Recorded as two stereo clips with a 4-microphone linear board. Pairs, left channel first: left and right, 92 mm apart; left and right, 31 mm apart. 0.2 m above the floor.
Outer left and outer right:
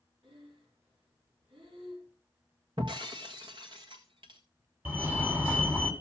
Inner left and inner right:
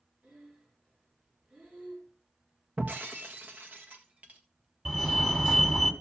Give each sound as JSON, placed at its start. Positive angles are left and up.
{"t": 0.2, "sound": "breathing", "side_deg": -75, "distance_m": 6.0}
{"t": 2.8, "sound": "breaking glass", "side_deg": -60, "distance_m": 1.6}
{"t": 4.8, "sound": "a fire alarm", "side_deg": -20, "distance_m": 2.5}